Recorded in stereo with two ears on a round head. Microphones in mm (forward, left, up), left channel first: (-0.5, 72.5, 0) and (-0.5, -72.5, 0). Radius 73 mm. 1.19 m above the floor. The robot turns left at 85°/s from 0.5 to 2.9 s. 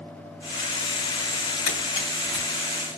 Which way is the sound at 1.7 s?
55° left (ahead or behind).